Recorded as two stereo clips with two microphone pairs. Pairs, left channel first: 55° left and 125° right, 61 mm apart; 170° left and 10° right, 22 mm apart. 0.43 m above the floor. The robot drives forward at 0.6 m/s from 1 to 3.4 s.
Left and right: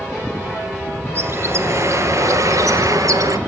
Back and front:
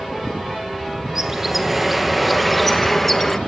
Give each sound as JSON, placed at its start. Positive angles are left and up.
{"t": 1.1, "sound": "a bird", "azimuth_deg": -75, "distance_m": 2.5}